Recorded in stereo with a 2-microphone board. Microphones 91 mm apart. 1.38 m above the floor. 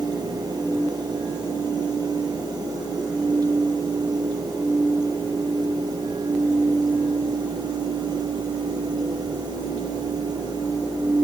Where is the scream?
No scream in this recording.